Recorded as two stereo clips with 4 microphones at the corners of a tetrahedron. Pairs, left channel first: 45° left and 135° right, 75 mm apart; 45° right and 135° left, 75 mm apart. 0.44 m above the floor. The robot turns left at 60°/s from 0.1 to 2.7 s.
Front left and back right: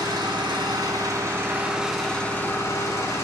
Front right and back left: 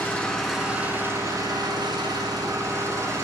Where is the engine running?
110° right, 3 m; by 3.2 s 90° left, 3 m.